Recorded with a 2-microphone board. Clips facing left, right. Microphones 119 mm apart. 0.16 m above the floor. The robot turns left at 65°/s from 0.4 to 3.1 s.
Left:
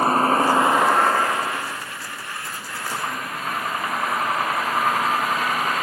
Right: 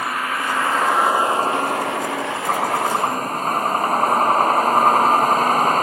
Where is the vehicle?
35° left; by 5.8 s 140° right.